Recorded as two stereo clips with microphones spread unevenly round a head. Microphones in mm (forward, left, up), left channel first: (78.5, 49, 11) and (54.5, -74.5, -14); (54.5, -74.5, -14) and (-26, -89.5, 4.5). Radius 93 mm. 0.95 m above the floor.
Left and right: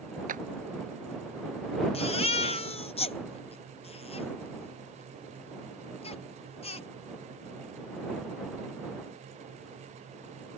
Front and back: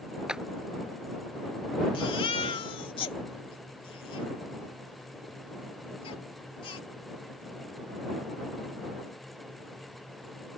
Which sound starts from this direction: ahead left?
A baby crying, at 1.9 s.